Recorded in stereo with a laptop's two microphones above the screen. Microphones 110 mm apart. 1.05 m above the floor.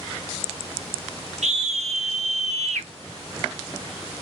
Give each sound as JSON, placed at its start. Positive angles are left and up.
{"t": 1.4, "sound": "a scream", "side_deg": -80, "distance_m": 1.1}